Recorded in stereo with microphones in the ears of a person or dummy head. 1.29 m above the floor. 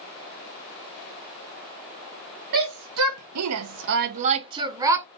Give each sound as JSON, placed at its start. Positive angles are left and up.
{"t": 2.5, "sound": "a shout", "side_deg": -60, "distance_m": 0.8}